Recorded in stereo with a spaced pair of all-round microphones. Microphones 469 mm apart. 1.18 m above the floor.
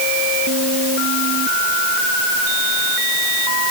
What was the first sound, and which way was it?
Only background noise.